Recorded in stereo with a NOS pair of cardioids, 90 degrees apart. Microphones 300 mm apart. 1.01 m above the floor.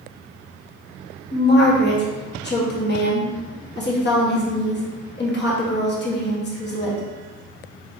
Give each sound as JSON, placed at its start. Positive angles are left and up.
{"t": 1.3, "sound": "a woman speaking", "azimuth_deg": 40, "distance_m": 1.6}